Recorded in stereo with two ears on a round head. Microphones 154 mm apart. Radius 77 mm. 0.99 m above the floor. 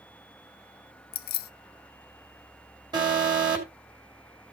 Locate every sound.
1.1 s keys jangling: 55° left (ahead or behind), 0.6 m
2.9 s an alarm: 25° right (ahead or behind), 3 m